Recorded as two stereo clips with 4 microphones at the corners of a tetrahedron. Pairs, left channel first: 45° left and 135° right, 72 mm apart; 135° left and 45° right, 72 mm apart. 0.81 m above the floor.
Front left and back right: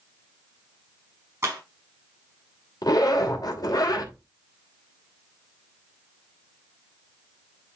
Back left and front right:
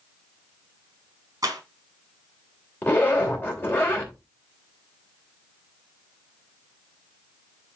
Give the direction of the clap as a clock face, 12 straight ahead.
3 o'clock.